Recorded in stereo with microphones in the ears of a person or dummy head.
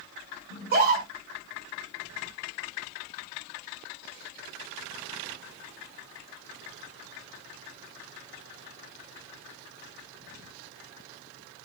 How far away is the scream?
About 5.5 m.